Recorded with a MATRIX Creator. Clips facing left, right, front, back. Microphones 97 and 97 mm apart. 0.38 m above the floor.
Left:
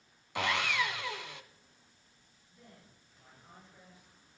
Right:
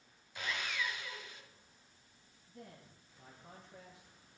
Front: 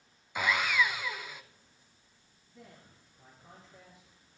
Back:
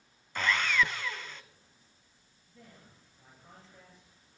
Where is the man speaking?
85° right, 8 m.